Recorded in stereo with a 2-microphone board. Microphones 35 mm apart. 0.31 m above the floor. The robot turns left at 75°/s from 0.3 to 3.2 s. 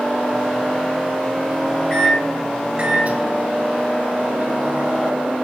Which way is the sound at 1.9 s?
20° left.